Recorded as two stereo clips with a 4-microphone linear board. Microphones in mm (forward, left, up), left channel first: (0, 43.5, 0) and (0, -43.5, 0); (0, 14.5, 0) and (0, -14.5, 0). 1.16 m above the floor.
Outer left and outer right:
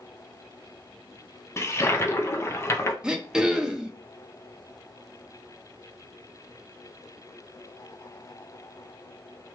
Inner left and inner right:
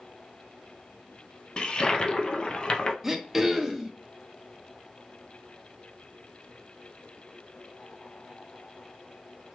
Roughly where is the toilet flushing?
Left.